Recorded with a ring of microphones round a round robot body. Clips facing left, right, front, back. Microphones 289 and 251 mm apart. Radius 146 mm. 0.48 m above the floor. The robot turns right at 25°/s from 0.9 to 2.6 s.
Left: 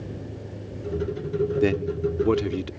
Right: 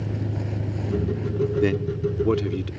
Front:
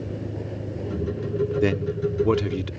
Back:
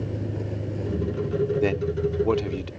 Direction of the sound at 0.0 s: 95° right.